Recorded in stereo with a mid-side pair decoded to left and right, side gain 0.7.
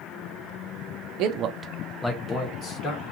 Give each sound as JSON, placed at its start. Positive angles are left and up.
{"t": 1.2, "sound": "a man speaking", "azimuth_deg": -60, "distance_m": 0.6}